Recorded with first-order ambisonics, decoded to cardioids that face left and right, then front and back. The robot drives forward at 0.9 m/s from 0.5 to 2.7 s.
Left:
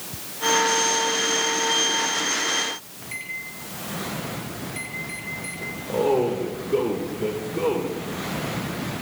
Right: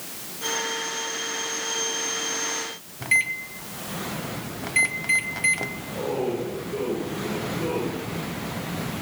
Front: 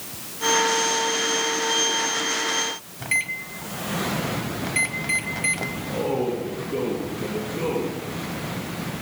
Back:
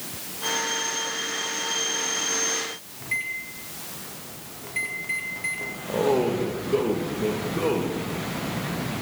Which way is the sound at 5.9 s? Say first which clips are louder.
Left 8 dB, back 4 dB; 145° left.